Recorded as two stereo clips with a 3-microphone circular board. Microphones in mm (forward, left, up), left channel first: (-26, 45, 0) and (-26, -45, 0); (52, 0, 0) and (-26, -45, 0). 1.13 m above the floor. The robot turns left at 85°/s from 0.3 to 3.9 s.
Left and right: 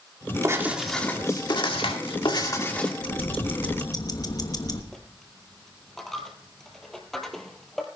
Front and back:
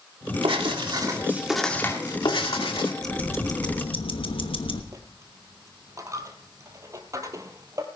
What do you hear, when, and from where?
0.4 s writing: 145° right, 2 m; by 2.9 s 5° left, 2 m
3.0 s ticking: 120° left, 1.2 m; by 4.8 s 45° left, 1.2 m
4.9 s a dropped coin: 175° left, 1.6 m